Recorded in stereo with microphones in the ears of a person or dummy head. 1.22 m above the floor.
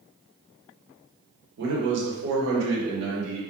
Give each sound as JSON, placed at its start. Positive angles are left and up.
{"t": 1.6, "sound": "a man speaking", "side_deg": -60, "distance_m": 0.9}